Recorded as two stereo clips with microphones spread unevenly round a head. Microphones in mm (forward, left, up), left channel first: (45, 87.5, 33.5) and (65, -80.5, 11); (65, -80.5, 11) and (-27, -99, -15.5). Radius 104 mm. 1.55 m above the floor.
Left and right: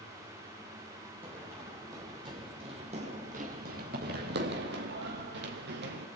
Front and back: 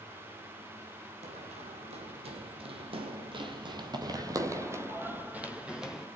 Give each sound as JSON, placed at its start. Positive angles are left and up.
{"t": 1.2, "sound": "running footsteps", "azimuth_deg": -165, "distance_m": 3.5}